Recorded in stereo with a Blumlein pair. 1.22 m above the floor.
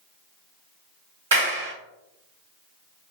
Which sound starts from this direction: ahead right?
A clap, at 1.3 s.